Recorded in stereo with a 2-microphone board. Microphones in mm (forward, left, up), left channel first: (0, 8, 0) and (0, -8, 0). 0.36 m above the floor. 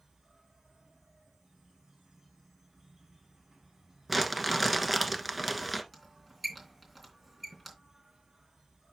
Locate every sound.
0.0 s an insect: 35° right (ahead or behind), 7 m
4.1 s crumpling: 5° right (ahead or behind), 1.3 m
5.9 s a squeak: 5° right (ahead or behind), 3.5 m